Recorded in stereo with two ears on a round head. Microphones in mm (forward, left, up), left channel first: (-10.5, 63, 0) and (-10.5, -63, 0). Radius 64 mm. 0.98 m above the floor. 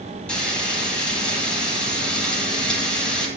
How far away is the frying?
About 9.5 m.